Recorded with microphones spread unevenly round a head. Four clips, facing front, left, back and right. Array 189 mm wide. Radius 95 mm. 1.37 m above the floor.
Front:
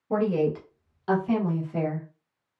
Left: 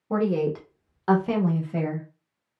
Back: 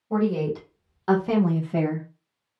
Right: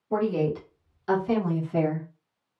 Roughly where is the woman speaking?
Ahead left.